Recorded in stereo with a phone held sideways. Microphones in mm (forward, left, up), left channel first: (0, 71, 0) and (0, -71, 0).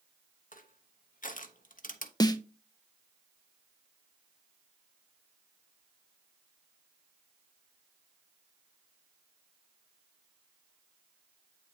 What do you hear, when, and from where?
0.5 s crushing: 70° left (ahead or behind), 0.9 m
2.2 s a snare drum: 30° left (ahead or behind), 0.6 m